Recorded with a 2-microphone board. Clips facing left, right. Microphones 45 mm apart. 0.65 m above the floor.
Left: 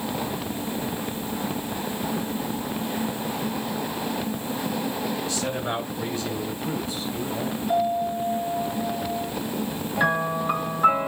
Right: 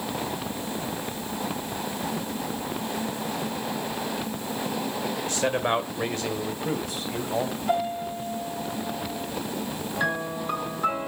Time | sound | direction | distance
5.2 | a man speaking | 50° right (ahead or behind) | 1.9 m
7.7 | a piano | 50° right (ahead or behind) | 4 m
10.0 | a piano | 15° left (ahead or behind) | 2.5 m